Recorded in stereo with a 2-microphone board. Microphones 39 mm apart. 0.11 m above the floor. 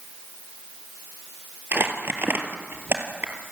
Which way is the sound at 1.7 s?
55° right (ahead or behind).